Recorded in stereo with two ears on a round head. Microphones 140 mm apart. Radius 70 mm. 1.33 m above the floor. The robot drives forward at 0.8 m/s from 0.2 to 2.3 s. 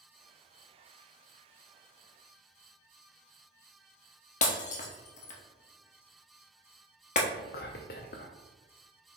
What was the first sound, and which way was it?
Breaking glass, 50° left (ahead or behind).